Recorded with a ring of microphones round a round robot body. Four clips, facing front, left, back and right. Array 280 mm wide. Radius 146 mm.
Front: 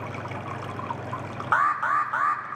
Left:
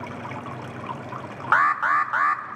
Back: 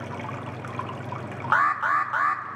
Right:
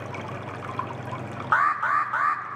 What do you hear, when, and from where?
1.5 s an alarm: 110° left, 1.3 m